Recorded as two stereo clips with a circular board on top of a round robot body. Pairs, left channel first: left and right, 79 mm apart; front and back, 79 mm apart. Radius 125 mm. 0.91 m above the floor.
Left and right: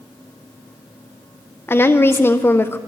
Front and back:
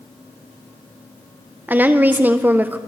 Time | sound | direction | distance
1.7 | a woman speaking | 125° left | 0.8 m